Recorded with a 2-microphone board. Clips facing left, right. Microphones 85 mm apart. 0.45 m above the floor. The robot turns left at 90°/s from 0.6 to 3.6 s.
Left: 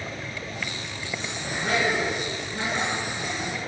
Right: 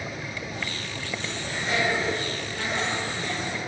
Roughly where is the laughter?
Left.